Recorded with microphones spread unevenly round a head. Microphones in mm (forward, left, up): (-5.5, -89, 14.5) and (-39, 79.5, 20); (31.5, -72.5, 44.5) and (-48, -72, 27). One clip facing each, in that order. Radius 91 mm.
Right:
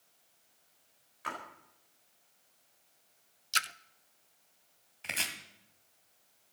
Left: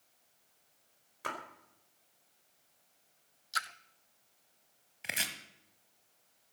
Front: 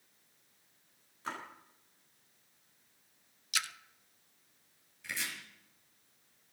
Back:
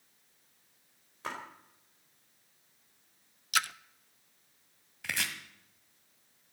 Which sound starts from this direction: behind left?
A splash, at 1.2 s.